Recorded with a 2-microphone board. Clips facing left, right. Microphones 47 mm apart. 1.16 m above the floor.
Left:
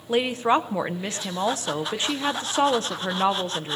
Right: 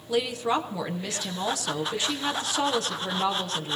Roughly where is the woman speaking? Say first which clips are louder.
Left 4 dB; left.